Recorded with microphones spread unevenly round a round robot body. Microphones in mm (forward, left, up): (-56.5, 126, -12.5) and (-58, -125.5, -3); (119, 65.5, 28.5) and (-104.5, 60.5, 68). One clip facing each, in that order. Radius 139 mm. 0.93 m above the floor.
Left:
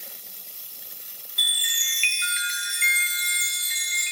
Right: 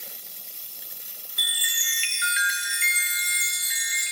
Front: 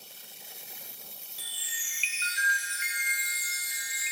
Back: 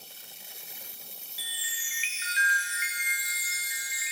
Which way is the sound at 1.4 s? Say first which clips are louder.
Right 1 dB, back 2 dB; 150° right.